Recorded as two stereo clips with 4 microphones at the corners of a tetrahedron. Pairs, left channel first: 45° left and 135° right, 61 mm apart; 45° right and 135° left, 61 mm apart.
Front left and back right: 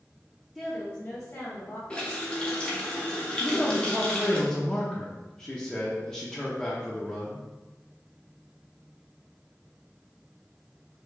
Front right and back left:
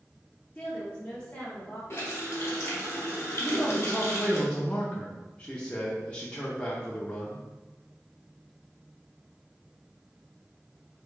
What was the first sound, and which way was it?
A woman speaking, 30° right.